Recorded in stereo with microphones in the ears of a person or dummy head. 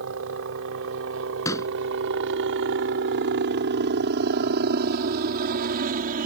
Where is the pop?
20° left (ahead or behind).